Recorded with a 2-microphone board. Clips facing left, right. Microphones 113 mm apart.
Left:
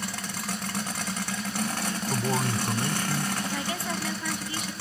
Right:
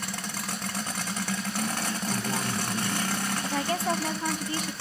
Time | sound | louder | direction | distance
2.1 | a man speaking | left 5 dB | 25° left (ahead or behind) | 2.0 m
3.5 | a woman speaking | right 4 dB | 45° right (ahead or behind) | 1.9 m